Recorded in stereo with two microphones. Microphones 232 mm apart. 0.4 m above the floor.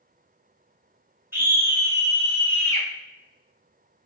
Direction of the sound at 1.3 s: 10° right (ahead or behind).